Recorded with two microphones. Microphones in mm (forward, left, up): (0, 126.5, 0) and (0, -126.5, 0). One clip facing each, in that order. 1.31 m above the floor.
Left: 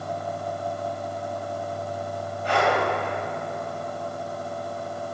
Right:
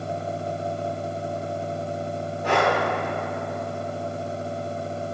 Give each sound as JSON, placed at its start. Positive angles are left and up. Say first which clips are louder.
{"t": 2.4, "sound": "breathing", "louder": "right 1 dB", "side_deg": -75, "distance_m": 2.5}